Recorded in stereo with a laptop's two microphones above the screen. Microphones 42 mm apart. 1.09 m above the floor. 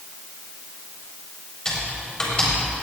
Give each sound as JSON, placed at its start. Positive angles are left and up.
{"t": 1.6, "sound": "typing on a keyboard", "side_deg": 20, "distance_m": 4.5}